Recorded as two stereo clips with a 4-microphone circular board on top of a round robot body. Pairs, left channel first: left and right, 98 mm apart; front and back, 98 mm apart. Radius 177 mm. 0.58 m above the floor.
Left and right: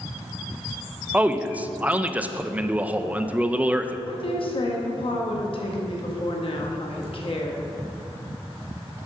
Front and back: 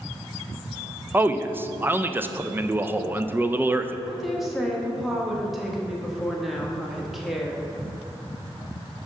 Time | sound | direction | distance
1.1 | a man speaking | 145° right | 0.6 m
4.1 | a woman speaking | 90° left | 1.5 m